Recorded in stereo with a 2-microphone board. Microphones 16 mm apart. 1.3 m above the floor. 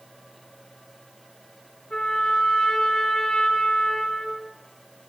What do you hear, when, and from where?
1.9 s a trumpet: 75° left (ahead or behind), 9 m